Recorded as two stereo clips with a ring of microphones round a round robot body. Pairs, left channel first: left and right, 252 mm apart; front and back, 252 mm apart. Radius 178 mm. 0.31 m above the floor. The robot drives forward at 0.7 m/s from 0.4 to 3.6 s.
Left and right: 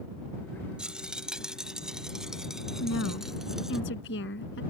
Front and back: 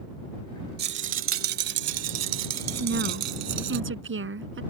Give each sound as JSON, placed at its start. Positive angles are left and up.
{"t": 0.8, "sound": "a rattle", "azimuth_deg": -175}
{"t": 2.8, "sound": "a woman speaking", "azimuth_deg": 140}